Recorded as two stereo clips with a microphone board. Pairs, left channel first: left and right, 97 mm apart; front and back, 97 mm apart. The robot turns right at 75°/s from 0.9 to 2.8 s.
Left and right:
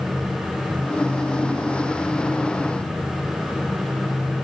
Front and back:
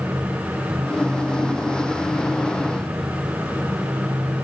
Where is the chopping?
No chopping in this recording.